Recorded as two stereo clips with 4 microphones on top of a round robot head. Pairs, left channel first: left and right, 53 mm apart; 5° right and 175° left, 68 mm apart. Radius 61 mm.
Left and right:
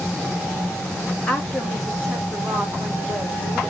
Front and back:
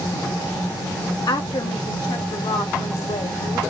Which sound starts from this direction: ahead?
A woman speaking, at 1.3 s.